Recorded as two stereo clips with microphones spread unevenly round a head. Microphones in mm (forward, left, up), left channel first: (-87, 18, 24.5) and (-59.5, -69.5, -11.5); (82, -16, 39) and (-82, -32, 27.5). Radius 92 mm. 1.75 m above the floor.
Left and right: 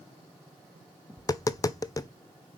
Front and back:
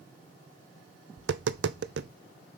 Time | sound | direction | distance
1.2 | tapping | 155° left | 0.7 m